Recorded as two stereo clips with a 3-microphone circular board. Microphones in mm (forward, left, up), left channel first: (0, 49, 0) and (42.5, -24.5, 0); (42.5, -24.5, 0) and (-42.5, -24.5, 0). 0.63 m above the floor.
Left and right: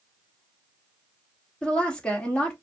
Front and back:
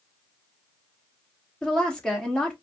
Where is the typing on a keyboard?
I don't hear typing on a keyboard.